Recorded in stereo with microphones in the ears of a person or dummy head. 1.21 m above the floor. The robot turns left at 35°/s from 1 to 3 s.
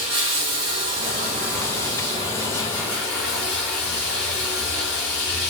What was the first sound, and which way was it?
Running water, 110° right.